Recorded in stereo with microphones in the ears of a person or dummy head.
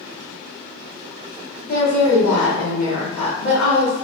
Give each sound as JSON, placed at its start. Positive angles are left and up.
{"t": 1.6, "sound": "a woman speaking", "side_deg": 45, "distance_m": 1.1}